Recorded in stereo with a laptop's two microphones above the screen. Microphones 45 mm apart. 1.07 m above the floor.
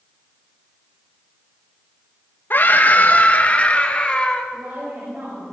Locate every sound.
2.5 s a scream: 50° left (ahead or behind), 1.5 m; by 4.4 s 20° left (ahead or behind), 2.5 m
4.5 s a woman speaking: 55° right (ahead or behind), 7 m